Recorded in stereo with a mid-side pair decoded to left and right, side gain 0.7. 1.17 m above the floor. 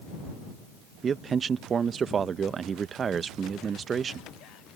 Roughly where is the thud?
No thud in this recording.